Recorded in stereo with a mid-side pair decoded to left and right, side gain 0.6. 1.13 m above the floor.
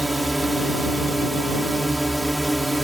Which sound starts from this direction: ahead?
A drone, at 0.0 s.